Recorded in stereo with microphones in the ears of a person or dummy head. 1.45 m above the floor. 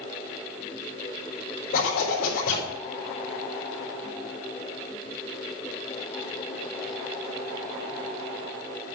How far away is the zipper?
About 5.5 m.